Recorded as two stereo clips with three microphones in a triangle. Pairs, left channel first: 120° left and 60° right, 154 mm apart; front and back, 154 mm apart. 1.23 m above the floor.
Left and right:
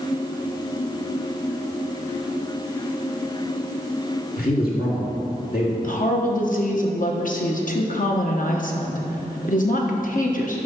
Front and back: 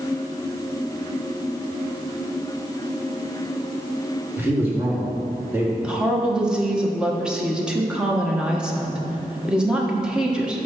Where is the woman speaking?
95° left, 1.1 m.